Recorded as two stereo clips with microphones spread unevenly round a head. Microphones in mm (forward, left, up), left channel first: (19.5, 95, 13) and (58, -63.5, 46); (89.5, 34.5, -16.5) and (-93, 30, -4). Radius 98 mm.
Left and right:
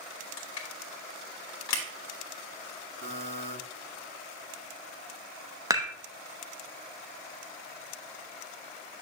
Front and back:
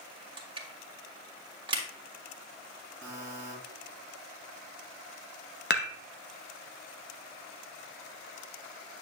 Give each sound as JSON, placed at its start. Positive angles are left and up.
{"t": 0.4, "sound": "crushing", "azimuth_deg": 125, "distance_m": 1.9}
{"t": 3.0, "sound": "a buzzer", "azimuth_deg": -80, "distance_m": 3.0}
{"t": 5.7, "sound": "dishes clattering", "azimuth_deg": -20, "distance_m": 0.7}